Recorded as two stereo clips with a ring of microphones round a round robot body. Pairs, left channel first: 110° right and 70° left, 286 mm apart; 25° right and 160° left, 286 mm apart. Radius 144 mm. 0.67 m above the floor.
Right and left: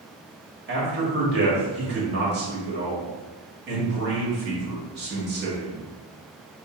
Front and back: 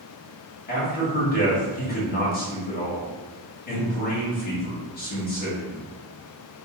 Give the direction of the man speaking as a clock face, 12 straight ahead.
11 o'clock.